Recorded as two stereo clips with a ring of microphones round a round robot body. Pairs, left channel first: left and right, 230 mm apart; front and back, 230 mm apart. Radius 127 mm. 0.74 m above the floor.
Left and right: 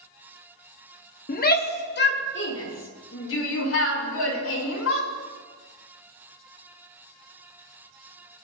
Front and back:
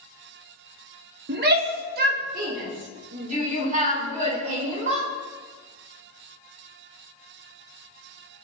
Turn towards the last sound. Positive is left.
turn(degrees=115)